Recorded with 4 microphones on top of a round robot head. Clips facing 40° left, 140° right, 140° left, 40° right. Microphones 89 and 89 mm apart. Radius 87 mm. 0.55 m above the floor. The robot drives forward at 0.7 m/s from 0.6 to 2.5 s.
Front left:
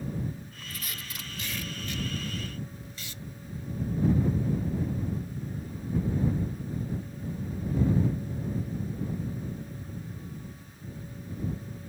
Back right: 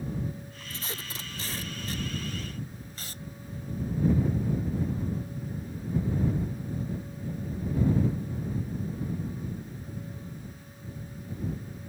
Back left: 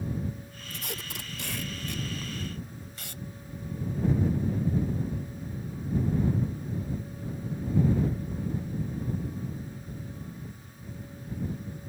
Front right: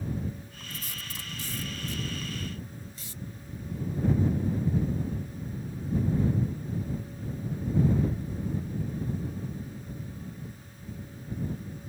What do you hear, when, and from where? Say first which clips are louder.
0.7 s tape being pulled: back right 3 dB, back left 4 dB; 160° left; by 3.2 s 170° left